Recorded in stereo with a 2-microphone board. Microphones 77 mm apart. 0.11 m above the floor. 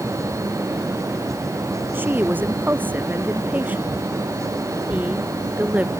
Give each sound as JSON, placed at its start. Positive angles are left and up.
{"t": 1.9, "sound": "a woman speaking", "side_deg": -25}